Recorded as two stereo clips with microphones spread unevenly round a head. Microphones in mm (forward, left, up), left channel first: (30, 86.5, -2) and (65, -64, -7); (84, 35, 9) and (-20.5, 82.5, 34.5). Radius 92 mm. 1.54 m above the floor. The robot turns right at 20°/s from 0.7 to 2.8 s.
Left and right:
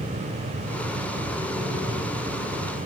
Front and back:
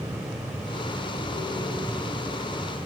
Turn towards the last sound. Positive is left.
No sound to turn to.